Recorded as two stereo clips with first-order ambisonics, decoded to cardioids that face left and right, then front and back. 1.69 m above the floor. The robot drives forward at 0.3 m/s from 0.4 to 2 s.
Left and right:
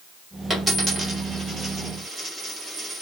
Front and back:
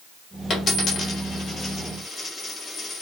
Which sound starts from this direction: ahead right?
A dropped coin, at 0.5 s.